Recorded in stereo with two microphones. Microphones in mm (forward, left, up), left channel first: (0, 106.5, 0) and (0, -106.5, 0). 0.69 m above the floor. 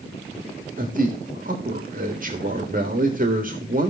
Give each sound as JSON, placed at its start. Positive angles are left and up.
{"t": 0.8, "sound": "a man speaking", "side_deg": -40, "distance_m": 1.6}